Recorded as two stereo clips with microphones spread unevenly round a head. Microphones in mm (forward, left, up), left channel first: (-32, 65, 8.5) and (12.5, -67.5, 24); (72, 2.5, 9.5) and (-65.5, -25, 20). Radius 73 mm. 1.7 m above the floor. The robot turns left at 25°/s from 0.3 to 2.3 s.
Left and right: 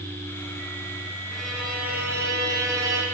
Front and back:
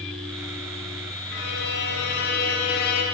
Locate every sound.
1.3 s a violin: 20° left, 1.0 m; by 3.0 s 5° right, 1.0 m